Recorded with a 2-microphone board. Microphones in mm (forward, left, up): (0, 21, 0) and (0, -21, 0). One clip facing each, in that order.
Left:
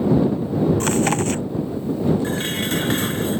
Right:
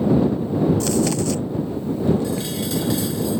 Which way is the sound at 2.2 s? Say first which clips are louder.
Left 1 dB; 50° left (ahead or behind).